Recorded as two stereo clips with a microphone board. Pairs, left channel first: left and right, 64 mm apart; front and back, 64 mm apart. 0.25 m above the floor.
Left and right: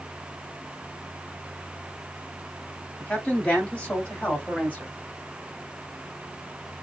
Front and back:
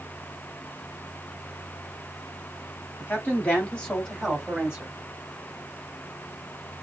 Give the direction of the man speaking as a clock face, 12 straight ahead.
11 o'clock.